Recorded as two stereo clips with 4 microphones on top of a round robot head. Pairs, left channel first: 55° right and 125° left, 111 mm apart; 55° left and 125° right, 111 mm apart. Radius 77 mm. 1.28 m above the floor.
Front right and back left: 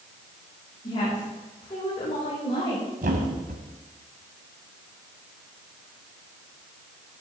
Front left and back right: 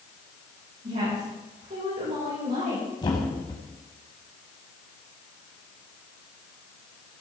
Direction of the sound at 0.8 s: 105° right.